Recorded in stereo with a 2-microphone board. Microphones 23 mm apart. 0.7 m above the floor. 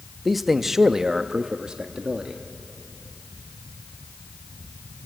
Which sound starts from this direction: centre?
A man speaking, at 0.2 s.